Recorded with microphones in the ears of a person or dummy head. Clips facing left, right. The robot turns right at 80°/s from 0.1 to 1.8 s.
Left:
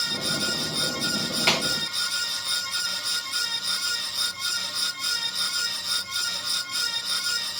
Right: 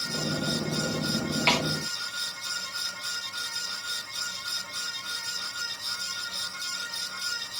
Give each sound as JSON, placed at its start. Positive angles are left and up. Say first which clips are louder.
{"t": 1.5, "sound": "a snare drum", "louder": "left 1 dB", "side_deg": 5, "distance_m": 2.5}